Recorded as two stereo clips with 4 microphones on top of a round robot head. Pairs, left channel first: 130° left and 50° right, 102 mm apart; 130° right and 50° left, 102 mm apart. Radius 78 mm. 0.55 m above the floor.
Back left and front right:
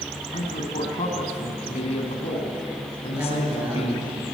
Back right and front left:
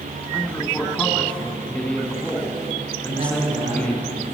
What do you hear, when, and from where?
0.3 s a man speaking: 150° left, 5 m
3.1 s a woman speaking: 20° left, 9.5 m